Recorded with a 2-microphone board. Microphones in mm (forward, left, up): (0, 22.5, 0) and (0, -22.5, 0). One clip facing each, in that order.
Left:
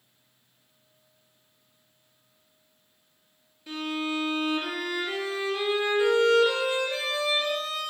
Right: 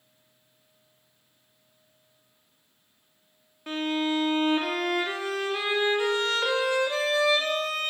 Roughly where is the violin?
Right.